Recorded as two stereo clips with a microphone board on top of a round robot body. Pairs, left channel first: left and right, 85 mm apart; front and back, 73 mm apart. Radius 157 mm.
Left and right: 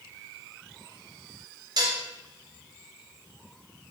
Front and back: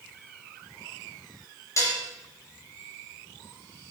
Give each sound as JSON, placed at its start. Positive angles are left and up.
{"t": 1.8, "sound": "dishes clattering", "azimuth_deg": -50, "distance_m": 1.6}